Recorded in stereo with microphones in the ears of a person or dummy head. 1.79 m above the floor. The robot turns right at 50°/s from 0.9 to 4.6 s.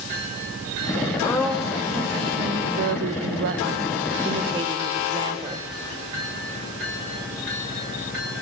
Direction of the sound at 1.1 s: 160° left.